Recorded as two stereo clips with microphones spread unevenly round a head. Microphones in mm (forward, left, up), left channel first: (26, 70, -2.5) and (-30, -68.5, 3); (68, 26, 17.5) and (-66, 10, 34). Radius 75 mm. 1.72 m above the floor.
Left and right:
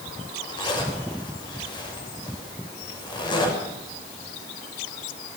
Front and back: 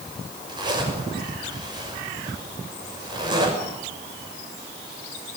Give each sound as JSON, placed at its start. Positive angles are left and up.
{"t": 0.5, "sound": "a zipper", "azimuth_deg": 130, "distance_m": 6.5}